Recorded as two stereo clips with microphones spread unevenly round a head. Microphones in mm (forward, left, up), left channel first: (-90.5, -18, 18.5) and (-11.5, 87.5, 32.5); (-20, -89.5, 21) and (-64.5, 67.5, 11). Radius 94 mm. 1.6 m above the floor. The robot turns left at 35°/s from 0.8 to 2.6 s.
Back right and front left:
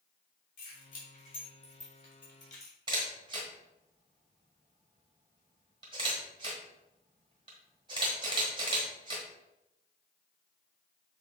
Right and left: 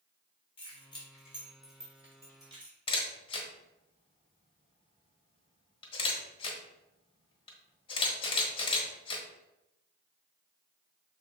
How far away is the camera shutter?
About 1.2 m.